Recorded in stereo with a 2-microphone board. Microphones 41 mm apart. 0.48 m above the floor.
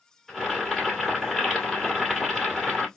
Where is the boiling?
5° left (ahead or behind), 2 m.